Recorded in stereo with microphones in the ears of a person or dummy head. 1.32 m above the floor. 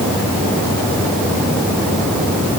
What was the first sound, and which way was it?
Only background noise.